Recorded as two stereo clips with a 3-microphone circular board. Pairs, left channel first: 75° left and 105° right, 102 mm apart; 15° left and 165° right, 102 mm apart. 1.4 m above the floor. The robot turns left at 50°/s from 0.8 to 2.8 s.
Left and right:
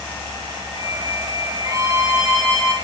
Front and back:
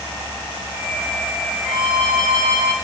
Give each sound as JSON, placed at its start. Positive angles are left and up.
{"t": 1.6, "sound": "a violin", "azimuth_deg": -150, "distance_m": 2.0}